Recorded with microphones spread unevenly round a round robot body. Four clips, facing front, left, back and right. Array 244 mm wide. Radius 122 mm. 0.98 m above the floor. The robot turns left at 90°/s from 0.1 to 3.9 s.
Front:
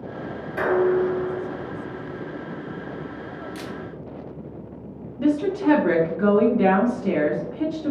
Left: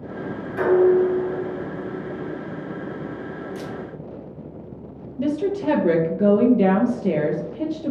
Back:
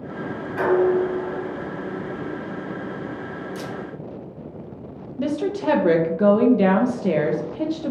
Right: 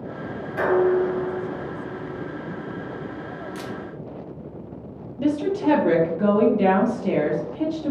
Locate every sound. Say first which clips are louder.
0.6 s dishes clattering: left 3 dB, back 1 dB; 50° left, 1.4 m; by 2.3 s 105° right, 1.4 m
3.5 s a camera shutter: left 1 dB, back 2 dB; 90° right, 0.8 m; by 3.7 s 105° right, 0.8 m
5.2 s a woman speaking: even, front 3 dB; 125° left, 0.5 m